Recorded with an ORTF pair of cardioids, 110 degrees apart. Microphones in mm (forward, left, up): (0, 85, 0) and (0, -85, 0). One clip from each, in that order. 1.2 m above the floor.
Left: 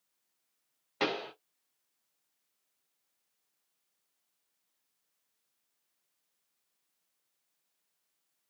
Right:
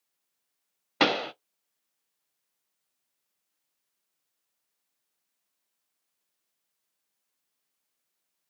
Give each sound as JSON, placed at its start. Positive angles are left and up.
{"t": 1.0, "sound": "a pop", "azimuth_deg": -50, "distance_m": 0.6}